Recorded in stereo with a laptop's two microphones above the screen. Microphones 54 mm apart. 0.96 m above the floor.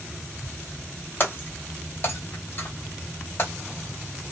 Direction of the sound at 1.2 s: 40° left (ahead or behind).